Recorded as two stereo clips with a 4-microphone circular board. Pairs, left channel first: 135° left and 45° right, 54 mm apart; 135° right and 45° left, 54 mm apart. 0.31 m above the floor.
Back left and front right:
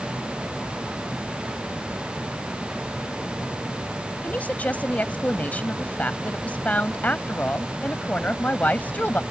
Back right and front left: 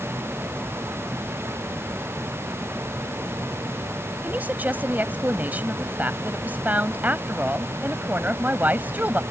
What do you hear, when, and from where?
4.2 s a woman speaking: 85° left